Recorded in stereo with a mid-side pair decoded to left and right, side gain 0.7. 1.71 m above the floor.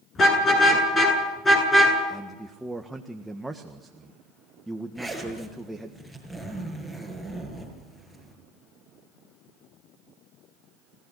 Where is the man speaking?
5° right, 1.6 m.